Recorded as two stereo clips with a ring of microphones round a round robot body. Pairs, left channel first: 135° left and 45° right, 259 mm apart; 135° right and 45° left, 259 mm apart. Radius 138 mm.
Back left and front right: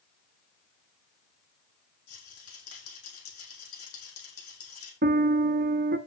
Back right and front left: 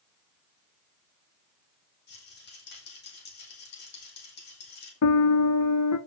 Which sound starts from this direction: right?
A piano, at 5.0 s.